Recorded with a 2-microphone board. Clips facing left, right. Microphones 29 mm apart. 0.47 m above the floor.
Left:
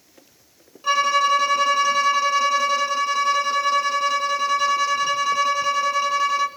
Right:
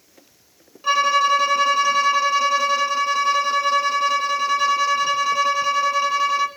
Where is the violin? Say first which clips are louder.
Right 1 dB; 5° right (ahead or behind), 1.0 m.